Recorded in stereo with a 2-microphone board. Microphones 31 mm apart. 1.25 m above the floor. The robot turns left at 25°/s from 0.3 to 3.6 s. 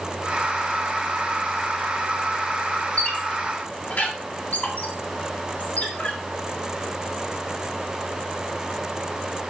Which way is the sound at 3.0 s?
35° left (ahead or behind).